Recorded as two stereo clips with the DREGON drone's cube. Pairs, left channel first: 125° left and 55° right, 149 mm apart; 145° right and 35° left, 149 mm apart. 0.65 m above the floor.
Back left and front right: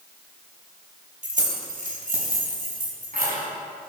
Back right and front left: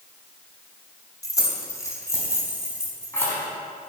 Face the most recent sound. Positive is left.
turn(degrees=-70)